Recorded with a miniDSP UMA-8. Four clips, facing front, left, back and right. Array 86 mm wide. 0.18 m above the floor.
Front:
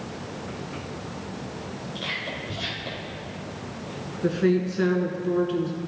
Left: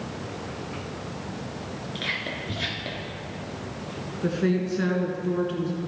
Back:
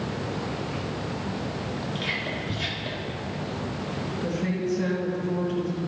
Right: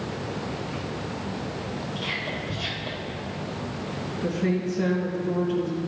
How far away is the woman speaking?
About 1.9 m.